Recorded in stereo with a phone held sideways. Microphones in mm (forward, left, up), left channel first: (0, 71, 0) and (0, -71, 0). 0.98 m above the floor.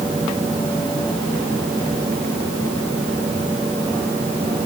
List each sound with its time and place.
Only background noise.